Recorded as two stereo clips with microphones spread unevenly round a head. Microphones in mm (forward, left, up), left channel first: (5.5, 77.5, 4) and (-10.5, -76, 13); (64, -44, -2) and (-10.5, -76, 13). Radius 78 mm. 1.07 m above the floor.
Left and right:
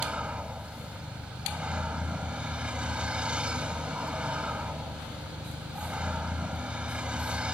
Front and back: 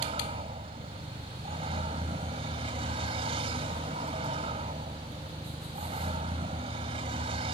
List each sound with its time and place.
0.0 s a vehicle: straight behind